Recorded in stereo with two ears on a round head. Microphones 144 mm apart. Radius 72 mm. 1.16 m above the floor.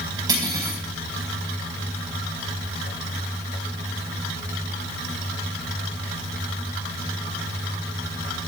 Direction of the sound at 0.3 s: 25° right (ahead or behind).